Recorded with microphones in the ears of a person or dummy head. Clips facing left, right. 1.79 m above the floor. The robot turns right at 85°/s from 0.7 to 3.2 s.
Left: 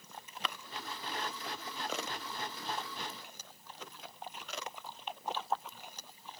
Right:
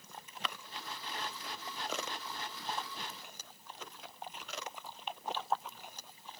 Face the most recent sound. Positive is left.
No sound to turn to.